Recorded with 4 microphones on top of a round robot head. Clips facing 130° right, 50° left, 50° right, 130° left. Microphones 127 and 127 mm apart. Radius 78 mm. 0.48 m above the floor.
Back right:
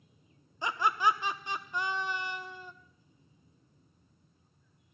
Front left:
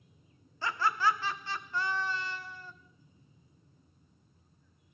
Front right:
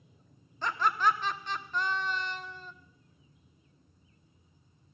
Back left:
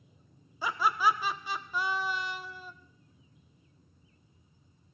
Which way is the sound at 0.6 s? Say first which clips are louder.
Back right 1 dB, even; 160° right.